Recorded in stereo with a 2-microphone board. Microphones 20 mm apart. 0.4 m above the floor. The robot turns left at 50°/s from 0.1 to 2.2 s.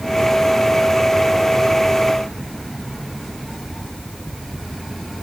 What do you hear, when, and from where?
Only background noise.